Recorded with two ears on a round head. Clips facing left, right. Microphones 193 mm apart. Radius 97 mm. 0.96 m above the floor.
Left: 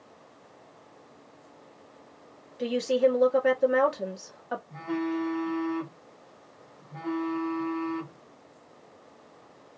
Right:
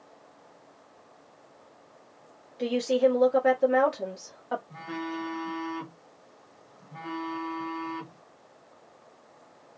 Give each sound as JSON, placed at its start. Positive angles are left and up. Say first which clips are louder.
{"t": 2.6, "sound": "a woman speaking", "louder": "even", "side_deg": 5, "distance_m": 1.3}
{"t": 4.7, "sound": "a phone buzzing", "louder": "left 6 dB", "side_deg": -10, "distance_m": 1.2}